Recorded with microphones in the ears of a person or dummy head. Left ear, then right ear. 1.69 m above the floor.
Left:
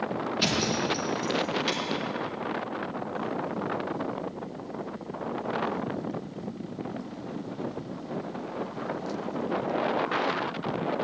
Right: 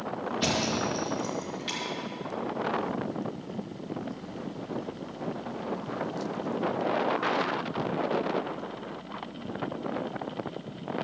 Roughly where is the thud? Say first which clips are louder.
Left 1 dB; left.